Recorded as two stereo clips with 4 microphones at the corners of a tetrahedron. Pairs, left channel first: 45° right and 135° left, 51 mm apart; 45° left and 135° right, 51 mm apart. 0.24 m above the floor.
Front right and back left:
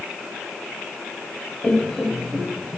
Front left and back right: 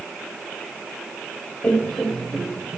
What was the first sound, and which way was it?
Laughter, 15° left.